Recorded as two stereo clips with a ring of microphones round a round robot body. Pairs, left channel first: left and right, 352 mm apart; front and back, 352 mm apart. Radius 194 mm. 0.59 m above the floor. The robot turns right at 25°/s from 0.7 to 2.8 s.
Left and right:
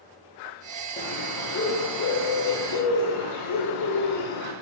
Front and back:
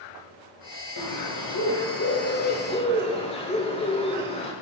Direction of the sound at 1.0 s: 25° left.